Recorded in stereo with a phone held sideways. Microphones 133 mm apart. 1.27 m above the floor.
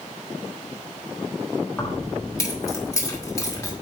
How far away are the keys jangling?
About 2.5 m.